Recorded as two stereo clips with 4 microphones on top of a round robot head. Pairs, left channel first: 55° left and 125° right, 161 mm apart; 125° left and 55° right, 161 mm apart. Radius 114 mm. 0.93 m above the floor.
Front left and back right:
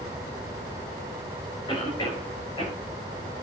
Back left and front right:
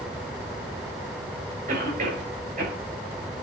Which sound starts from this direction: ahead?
A cough, at 1.7 s.